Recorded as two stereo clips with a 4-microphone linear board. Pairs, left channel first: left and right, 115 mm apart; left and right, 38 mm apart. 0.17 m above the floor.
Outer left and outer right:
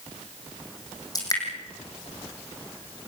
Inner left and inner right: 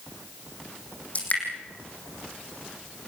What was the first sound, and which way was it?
Dripping, 35° left (ahead or behind).